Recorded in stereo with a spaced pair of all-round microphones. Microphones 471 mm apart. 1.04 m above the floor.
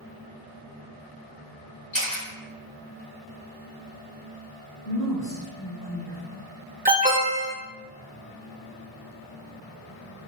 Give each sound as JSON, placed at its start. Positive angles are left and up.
{"t": 1.9, "sound": "a camera shutter", "side_deg": 65, "distance_m": 1.7}
{"t": 4.8, "sound": "a woman speaking", "side_deg": 45, "distance_m": 1.3}
{"t": 6.8, "sound": "an alarm", "side_deg": -15, "distance_m": 0.9}